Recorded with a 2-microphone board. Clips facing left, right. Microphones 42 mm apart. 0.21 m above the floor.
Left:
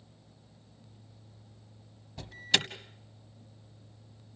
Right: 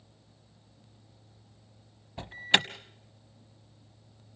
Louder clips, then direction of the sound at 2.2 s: Right 4 dB; 30° right (ahead or behind).